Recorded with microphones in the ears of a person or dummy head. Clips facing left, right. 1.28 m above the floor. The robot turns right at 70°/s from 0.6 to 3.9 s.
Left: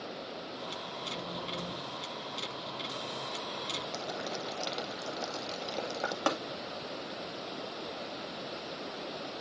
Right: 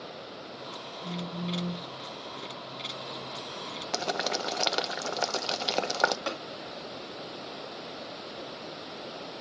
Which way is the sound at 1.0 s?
175° left.